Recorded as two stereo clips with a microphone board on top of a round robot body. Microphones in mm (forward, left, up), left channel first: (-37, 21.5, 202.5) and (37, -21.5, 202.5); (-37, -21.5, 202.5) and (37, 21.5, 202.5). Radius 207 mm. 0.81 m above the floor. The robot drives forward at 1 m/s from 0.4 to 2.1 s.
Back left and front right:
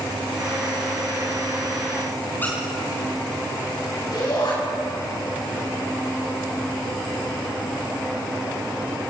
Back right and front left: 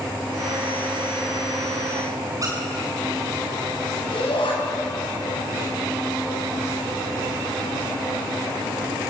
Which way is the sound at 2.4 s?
80° left.